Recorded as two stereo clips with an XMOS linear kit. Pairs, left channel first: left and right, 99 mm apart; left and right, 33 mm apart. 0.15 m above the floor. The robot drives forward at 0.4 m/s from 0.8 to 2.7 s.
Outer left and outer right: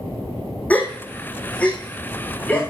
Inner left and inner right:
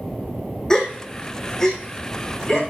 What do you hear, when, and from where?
0.7 s a gasp: 15° left (ahead or behind), 1.6 m; by 2.6 s 10° left (ahead or behind), 2.5 m